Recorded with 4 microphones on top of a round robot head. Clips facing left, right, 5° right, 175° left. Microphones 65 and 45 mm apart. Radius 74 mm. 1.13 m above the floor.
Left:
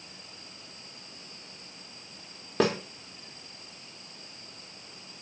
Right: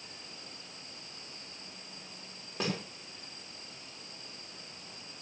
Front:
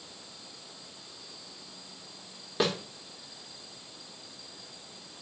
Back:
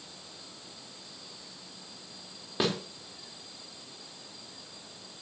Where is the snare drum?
90° left, 4 m.